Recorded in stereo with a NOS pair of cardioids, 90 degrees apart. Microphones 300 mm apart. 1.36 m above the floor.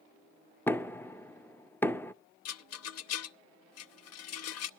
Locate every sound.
0.7 s knocking: 5° left, 0.5 m
2.5 s a rattle: 60° left, 0.6 m